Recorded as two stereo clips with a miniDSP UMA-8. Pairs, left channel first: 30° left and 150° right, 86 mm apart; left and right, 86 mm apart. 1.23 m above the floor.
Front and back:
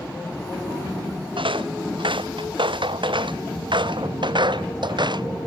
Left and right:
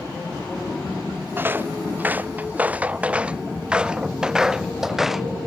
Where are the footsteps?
155° right; by 5.3 s straight behind.